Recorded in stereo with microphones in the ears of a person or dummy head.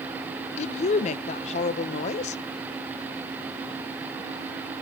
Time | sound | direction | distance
0.6 | a woman speaking | 40° left (ahead or behind) | 0.5 m